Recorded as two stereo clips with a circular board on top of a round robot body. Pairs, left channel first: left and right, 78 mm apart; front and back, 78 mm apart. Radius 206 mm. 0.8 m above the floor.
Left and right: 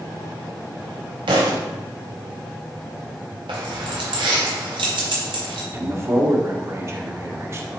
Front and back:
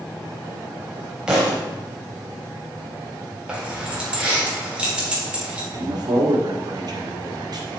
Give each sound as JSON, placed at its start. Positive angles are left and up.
{"t": 1.3, "sound": "a thud", "azimuth_deg": -100, "distance_m": 1.0}
{"t": 3.5, "sound": "keys jangling", "azimuth_deg": -100, "distance_m": 1.9}
{"t": 5.7, "sound": "a man speaking", "azimuth_deg": -145, "distance_m": 1.7}